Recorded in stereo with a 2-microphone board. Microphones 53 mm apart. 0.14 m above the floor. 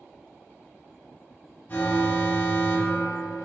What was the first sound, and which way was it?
An alarm, 35° left (ahead or behind).